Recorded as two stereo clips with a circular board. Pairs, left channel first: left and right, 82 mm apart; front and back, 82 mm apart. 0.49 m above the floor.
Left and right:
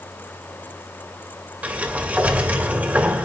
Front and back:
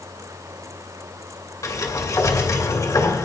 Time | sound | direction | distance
1.6 | a sliding door | 25° right | 1.8 m